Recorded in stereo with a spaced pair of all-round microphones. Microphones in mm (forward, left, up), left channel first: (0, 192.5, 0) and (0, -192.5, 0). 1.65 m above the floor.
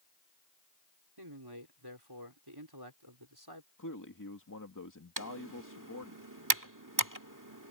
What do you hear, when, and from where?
1.2 s a man speaking: 75° right (ahead or behind)
3.8 s a man speaking: 55° left (ahead or behind)
5.2 s typing on a keyboard: 55° right (ahead or behind)